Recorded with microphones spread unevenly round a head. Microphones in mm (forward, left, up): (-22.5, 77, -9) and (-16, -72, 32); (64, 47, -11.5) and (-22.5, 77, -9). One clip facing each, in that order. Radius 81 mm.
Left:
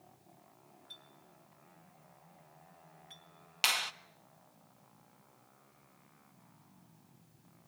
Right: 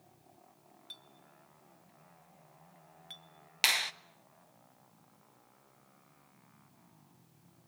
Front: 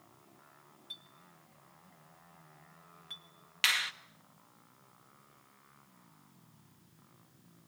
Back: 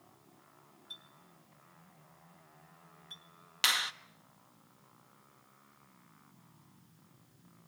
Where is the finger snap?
140° right, 0.5 m.